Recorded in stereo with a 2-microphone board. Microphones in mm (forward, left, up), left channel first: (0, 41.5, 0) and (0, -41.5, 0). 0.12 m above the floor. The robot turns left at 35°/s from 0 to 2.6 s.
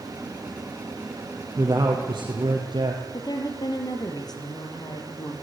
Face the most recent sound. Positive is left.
turn(degrees=55)  # may be behind; listen again after turning